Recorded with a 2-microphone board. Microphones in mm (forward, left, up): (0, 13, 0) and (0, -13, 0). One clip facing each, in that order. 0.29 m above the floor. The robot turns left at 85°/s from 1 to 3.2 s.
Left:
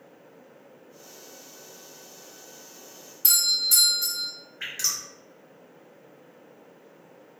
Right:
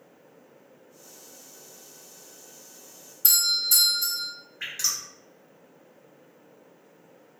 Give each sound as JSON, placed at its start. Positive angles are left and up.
{"t": 3.2, "sound": "a doorbell", "side_deg": 20, "distance_m": 1.7}
{"t": 4.6, "sound": "dripping", "side_deg": 0, "distance_m": 1.4}